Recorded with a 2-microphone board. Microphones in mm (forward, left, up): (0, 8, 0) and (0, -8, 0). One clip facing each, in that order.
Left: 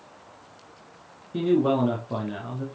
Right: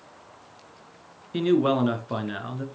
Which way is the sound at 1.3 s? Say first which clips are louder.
Even; 40° right (ahead or behind).